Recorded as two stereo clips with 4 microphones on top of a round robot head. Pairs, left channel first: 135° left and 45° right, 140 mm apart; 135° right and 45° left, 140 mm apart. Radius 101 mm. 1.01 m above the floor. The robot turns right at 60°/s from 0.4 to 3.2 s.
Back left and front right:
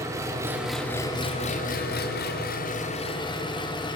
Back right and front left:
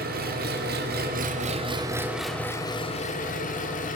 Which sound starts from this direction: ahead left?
An engine running, at 0.0 s.